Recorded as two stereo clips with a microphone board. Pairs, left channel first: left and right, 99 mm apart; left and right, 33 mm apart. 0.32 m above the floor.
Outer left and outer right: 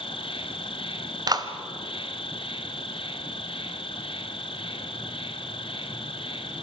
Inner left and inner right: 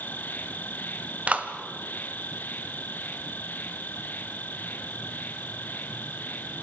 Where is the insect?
65° left (ahead or behind), 1.4 m.